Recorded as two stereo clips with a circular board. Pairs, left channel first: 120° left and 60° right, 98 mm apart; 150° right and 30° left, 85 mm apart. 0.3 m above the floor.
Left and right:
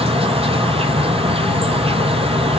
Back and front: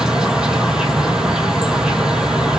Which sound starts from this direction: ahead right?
An insect, at 0.0 s.